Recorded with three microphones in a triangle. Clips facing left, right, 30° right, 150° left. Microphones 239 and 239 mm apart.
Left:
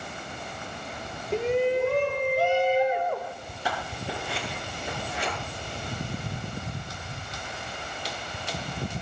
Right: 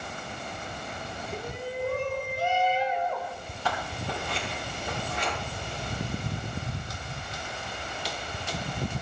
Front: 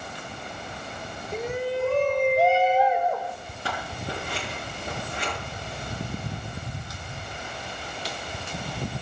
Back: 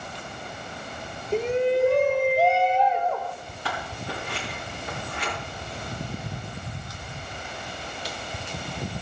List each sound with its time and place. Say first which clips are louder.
1.3 s a shout: left 12 dB, back 6 dB; 95° left, 1.2 m; by 3.3 s 45° left, 1.9 m
3.6 s scissors: even, front 1 dB; 10° left, 9.5 m